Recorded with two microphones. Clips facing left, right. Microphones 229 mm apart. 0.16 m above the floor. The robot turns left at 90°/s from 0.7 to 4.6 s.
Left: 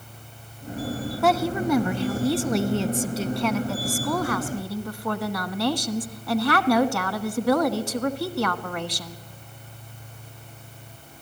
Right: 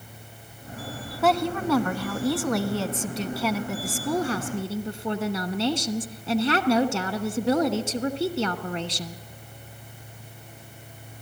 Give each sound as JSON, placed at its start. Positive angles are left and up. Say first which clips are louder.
{"t": 1.2, "sound": "a woman speaking", "louder": "left 1 dB", "side_deg": -5, "distance_m": 1.2}